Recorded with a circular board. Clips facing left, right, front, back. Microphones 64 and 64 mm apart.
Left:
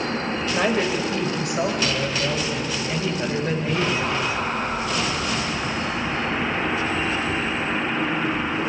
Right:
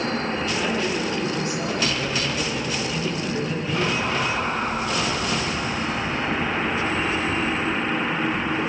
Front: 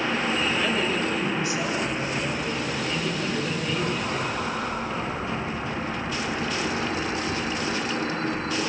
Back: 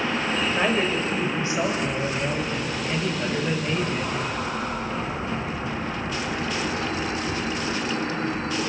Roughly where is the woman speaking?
Behind left.